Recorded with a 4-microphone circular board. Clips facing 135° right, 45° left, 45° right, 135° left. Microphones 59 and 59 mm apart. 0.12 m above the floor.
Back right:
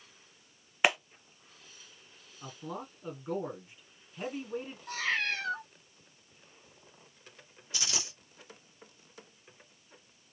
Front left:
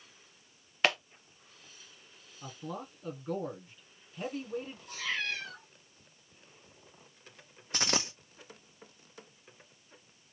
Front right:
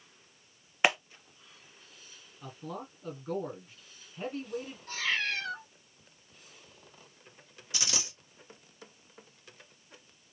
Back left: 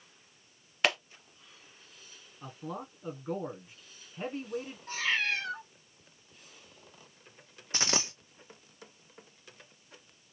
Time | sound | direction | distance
0.8 | a clap | 80° right | 0.9 m
2.4 | a man speaking | straight behind | 1.1 m
4.9 | a cat meowing | 155° right | 3 m
7.7 | a dropped coin | 85° left | 1.0 m